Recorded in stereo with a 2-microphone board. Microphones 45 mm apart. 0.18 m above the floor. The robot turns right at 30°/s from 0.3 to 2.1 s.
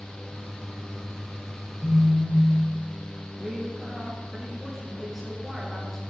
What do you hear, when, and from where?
1.8 s a phone buzzing: 25° left (ahead or behind), 1.8 m; by 2.6 s 30° left (ahead or behind), 1.8 m
3.4 s a woman speaking: centre (ahead or behind), 3 m